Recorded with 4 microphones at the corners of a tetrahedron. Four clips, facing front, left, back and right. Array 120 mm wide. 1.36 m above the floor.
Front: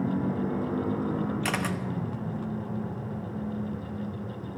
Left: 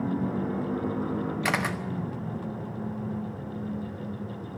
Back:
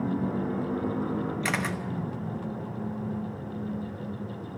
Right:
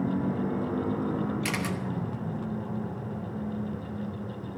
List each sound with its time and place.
1.4 s a camera shutter: 80° left, 1.0 m